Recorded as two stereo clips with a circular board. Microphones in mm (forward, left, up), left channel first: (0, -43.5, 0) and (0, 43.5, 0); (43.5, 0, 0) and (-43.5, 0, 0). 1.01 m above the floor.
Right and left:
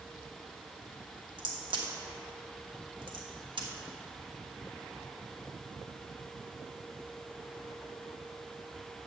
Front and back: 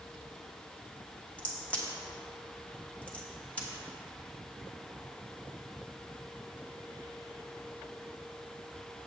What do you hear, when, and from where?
1.4 s a crack: 75° left, 1.1 m